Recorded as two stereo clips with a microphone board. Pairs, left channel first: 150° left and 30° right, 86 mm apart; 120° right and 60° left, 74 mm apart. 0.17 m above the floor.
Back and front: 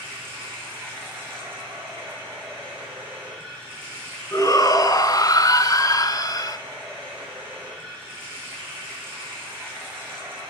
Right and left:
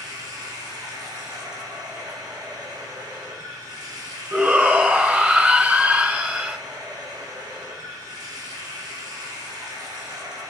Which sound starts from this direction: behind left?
A shout, at 4.3 s.